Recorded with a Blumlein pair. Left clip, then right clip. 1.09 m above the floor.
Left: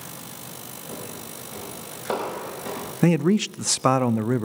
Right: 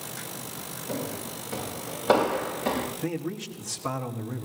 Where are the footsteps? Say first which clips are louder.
Right 4 dB; 15° right, 7.5 m.